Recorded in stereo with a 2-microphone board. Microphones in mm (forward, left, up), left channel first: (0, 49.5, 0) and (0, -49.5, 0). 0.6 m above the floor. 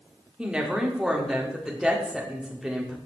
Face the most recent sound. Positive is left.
turn(degrees=-10)  # may be behind; listen again after turning